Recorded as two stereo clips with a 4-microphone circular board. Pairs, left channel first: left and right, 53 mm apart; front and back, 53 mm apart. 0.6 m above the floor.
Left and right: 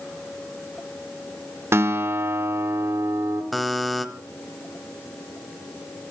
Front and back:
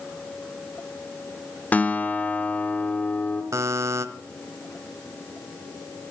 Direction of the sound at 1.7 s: 55° right.